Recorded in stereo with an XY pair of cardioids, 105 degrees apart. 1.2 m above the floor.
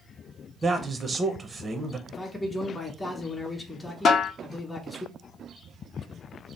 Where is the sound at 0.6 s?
25° right, 0.6 m.